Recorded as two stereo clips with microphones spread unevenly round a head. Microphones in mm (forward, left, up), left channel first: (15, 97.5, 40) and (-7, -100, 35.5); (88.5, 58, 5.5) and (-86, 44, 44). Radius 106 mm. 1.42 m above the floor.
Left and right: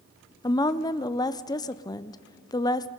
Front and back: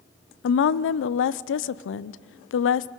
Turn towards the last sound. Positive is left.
turn(degrees=10)